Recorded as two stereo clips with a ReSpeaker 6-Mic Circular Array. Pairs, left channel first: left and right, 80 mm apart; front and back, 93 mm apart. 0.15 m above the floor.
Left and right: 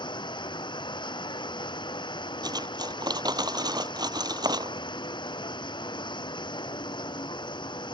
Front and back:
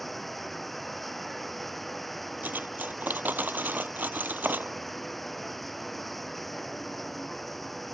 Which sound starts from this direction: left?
Running water, at 0.0 s.